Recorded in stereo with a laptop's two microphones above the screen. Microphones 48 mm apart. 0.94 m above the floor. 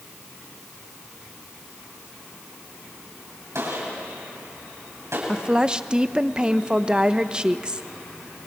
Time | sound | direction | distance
3.5 | a gunshot | 85° right | 7.5 m
5.3 | a woman speaking | 20° right (ahead or behind) | 0.7 m